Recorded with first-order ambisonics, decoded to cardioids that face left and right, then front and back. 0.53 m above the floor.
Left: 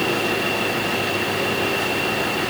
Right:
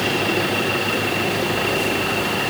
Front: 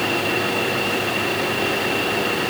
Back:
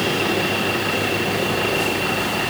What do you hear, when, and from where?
Only background noise.